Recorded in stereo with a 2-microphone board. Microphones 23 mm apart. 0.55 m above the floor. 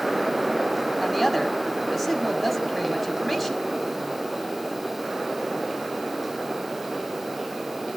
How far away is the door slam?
No door slam in this recording.